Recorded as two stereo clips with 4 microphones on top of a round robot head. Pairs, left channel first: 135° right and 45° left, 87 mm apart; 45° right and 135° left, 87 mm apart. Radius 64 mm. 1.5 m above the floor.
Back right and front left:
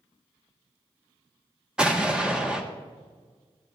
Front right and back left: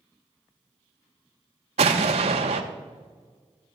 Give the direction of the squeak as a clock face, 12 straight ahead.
No squeak in this recording.